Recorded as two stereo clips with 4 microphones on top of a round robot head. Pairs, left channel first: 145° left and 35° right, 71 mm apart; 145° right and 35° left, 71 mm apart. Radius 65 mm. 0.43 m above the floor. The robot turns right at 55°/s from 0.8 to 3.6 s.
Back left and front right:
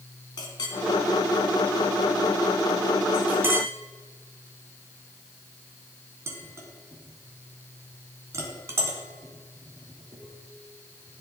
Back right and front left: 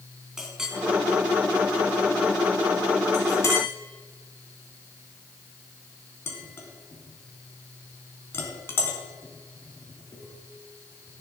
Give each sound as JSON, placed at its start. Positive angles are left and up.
{"t": 0.4, "sound": "a clink", "azimuth_deg": 120, "distance_m": 3.0}